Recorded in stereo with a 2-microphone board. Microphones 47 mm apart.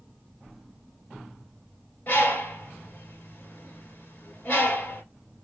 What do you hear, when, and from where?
2.1 s a bird: 45° left (ahead or behind), 2 m